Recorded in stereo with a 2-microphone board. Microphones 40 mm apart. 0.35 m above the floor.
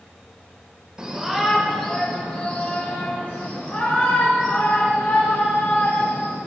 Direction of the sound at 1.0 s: 20° right (ahead or behind).